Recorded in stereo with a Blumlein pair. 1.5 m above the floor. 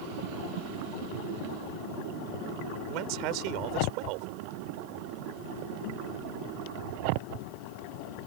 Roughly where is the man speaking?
Ahead right.